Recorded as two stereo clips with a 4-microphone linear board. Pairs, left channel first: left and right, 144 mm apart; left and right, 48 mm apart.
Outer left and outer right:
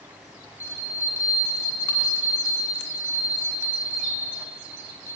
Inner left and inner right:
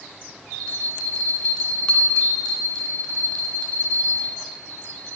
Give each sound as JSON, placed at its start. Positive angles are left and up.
{"t": 0.6, "sound": "a bell", "side_deg": 15, "distance_m": 1.7}